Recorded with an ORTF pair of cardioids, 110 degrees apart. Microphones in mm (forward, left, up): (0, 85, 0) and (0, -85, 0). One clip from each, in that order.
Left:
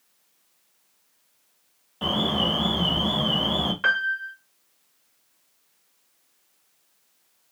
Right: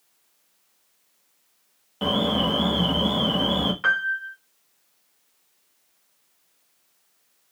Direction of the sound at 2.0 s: 25° right.